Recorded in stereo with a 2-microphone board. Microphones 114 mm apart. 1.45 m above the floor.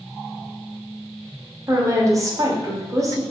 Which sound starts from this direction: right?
A woman speaking, at 1.7 s.